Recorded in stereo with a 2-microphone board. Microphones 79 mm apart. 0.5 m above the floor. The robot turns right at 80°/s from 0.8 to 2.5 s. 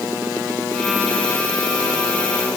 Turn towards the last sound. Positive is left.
No sound to turn to.